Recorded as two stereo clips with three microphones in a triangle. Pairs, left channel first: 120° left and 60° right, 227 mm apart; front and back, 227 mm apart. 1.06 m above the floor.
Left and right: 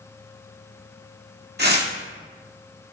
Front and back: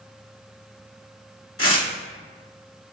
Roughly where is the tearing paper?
Ahead.